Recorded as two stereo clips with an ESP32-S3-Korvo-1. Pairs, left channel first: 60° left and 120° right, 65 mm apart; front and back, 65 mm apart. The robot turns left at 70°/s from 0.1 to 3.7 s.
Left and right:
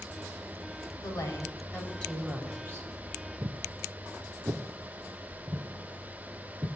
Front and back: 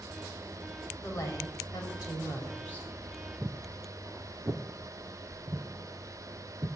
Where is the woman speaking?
55° left, 4 m; by 2.9 s 75° right, 4 m.